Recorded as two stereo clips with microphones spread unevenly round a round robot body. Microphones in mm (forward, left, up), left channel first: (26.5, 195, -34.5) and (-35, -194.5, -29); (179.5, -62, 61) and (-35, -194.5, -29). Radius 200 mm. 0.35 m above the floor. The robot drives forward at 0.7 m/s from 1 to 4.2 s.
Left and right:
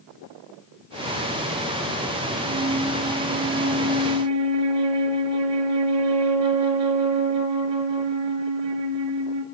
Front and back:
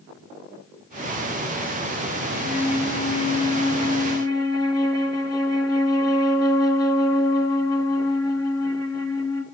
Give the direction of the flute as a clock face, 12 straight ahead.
1 o'clock.